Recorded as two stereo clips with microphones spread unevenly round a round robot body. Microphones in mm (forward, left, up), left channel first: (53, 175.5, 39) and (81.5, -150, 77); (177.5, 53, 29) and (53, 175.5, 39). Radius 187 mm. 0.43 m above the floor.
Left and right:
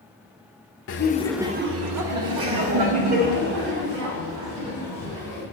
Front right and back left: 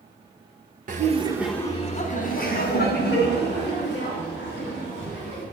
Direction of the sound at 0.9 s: 115° left.